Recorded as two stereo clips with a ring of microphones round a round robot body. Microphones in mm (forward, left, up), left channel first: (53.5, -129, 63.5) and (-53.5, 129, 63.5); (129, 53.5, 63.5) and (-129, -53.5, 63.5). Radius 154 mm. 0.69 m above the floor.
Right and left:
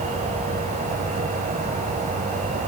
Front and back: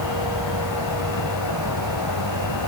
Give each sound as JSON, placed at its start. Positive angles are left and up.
{"t": 0.0, "sound": "an insect", "azimuth_deg": 45, "distance_m": 2.0}